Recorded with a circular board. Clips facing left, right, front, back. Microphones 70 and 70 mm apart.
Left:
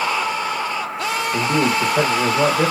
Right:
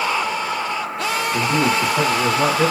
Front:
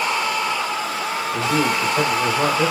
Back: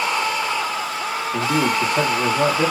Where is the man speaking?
105° left, 3 m.